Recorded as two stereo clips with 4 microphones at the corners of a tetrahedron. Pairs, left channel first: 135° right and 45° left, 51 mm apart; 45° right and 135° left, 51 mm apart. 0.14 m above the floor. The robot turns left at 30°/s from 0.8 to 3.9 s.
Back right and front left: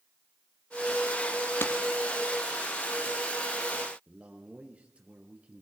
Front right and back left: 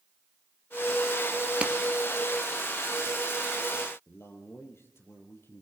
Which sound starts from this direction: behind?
A clap, at 1.6 s.